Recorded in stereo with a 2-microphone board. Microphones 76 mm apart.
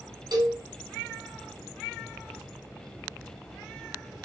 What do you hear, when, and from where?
0.3 s a cowbell: 65° right (ahead or behind), 1.7 m